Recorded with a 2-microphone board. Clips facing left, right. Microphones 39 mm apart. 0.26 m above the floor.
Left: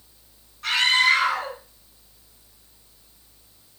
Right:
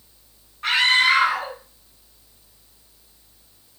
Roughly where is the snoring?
No snoring in this recording.